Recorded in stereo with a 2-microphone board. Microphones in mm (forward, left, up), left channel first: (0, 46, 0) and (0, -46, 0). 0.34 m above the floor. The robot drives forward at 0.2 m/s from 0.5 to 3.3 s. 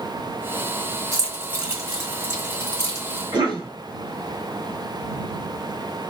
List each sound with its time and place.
1.1 s keys jangling: 30° right (ahead or behind), 1.4 m; by 3.2 s 35° right (ahead or behind), 1.2 m
3.3 s a cough: 50° right (ahead or behind), 1.4 m